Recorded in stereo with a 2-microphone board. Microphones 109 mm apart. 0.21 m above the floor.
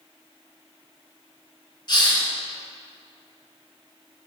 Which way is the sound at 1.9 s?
40° left (ahead or behind).